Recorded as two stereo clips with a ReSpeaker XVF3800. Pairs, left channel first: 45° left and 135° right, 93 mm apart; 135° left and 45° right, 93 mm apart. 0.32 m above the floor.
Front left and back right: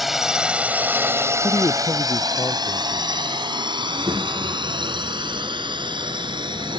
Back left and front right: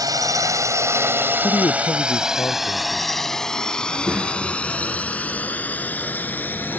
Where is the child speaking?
115° right.